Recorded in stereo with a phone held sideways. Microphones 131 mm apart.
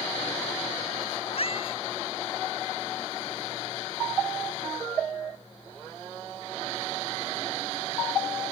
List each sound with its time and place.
1.3 s a cat meowing: 50° left (ahead or behind)